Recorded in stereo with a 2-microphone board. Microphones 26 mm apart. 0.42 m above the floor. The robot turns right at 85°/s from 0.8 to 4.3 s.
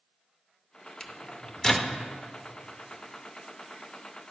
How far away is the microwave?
About 0.6 m.